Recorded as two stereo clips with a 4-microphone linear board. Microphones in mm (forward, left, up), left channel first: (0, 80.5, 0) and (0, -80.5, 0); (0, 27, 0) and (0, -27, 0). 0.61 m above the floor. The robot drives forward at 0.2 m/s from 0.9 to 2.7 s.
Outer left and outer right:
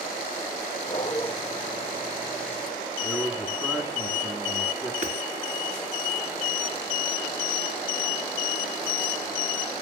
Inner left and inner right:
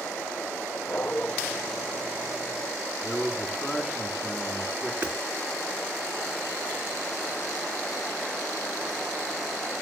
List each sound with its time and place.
0.9 s a dog barking: 30° left (ahead or behind), 8.5 m
3.0 s a man speaking: 15° right (ahead or behind), 6.5 m
5.0 s hammering: 50° right (ahead or behind), 5 m